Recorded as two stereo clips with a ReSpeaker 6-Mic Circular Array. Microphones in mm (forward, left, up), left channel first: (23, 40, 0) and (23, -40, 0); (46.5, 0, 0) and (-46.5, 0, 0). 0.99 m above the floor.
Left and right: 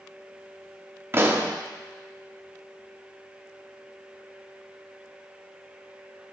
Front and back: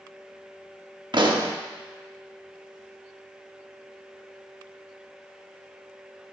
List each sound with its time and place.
1.1 s a pop: 150° right, 0.8 m